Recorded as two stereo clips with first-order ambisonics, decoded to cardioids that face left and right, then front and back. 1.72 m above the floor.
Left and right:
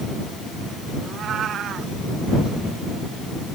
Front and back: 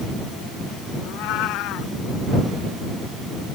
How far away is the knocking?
I don't hear knocking.